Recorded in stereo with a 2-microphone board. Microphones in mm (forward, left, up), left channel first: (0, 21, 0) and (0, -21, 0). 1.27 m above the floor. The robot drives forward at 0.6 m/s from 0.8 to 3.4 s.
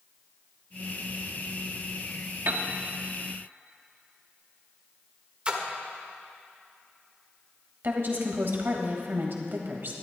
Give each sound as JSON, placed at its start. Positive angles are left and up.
{"t": 2.5, "sound": "a piano", "side_deg": -65, "distance_m": 1.1}
{"t": 5.5, "sound": "a splash", "side_deg": -30, "distance_m": 1.4}
{"t": 7.8, "sound": "a woman speaking", "side_deg": -55, "distance_m": 1.9}